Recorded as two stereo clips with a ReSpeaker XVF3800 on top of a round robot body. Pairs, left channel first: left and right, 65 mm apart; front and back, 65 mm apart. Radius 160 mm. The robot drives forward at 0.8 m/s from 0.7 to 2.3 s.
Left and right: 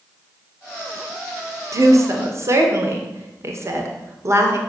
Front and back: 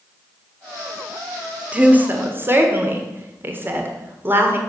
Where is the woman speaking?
110° right, 1.6 m; by 4.6 s 125° right, 1.7 m.